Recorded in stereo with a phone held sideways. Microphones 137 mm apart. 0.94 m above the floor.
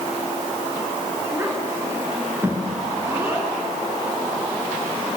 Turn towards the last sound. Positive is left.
turn(degrees=-10)  # may be behind; listen again after turning